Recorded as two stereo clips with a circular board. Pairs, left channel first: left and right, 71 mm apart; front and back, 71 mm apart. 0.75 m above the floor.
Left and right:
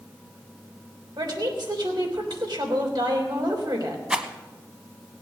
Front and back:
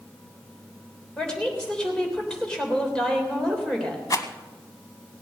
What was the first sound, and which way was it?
A woman speaking, 80° right.